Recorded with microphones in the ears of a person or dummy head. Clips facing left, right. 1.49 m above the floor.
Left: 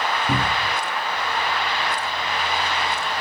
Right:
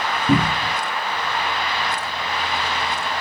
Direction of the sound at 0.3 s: 55° right (ahead or behind).